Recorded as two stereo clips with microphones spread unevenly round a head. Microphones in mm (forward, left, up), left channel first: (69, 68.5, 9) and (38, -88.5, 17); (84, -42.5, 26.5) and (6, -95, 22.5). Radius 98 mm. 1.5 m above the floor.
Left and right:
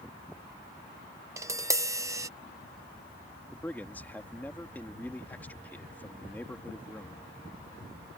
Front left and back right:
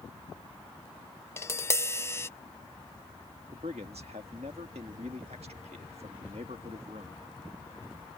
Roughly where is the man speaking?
Behind.